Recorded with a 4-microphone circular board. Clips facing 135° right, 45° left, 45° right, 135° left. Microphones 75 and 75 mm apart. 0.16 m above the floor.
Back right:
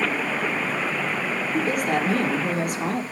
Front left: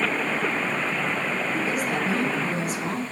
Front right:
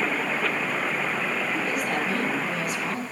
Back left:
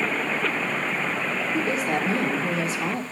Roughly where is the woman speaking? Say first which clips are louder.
Back right 6 dB, back left 2 dB; behind.